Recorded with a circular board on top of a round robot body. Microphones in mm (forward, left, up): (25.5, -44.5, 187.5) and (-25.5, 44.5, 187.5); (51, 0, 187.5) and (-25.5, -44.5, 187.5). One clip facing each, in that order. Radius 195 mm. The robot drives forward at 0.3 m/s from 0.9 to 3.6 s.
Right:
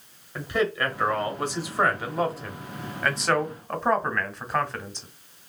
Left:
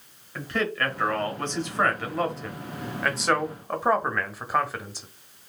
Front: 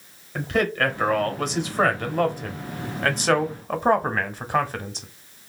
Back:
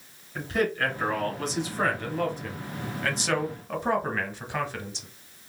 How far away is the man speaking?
About 1.6 m.